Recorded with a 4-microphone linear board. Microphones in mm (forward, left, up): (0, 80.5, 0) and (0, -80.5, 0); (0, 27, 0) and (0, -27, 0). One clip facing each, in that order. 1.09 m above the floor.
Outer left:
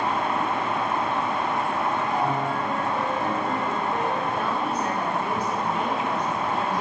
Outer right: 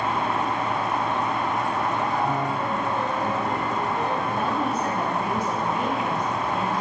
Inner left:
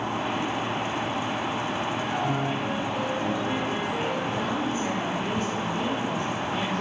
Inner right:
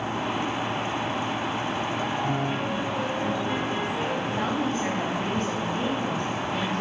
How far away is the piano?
About 2.5 m.